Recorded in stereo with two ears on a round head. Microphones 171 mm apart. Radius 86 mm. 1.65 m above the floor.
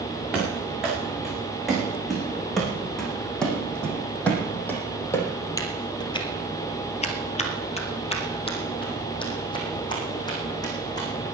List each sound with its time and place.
0.3 s running footsteps: 5° right (ahead or behind), 8.5 m; by 11.1 s 20° left (ahead or behind), 6 m